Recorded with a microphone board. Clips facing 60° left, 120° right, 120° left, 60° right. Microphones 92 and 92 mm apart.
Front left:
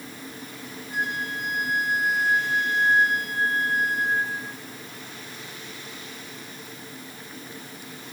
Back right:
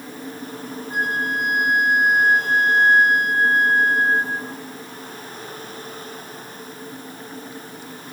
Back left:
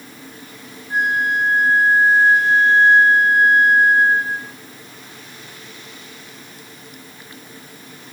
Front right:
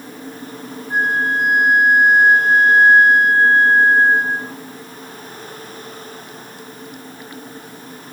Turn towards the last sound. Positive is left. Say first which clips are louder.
# back right 6 dB, front right 1 dB
turn(degrees=-130)